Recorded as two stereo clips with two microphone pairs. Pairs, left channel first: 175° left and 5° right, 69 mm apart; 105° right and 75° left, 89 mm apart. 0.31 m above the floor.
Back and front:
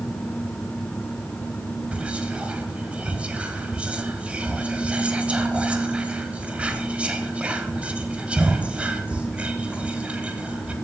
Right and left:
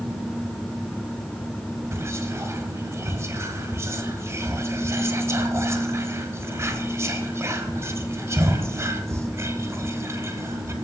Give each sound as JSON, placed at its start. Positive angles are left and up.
{"t": 1.9, "sound": "whispering", "azimuth_deg": 55, "distance_m": 1.0}